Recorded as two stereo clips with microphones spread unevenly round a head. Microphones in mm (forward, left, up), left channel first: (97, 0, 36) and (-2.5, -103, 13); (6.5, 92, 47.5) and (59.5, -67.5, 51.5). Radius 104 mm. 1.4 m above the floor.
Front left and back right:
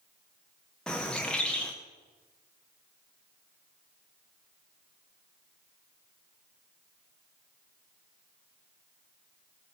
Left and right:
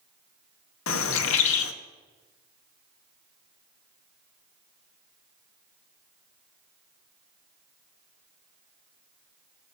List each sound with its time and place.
0.9 s a bird: 130° left, 0.7 m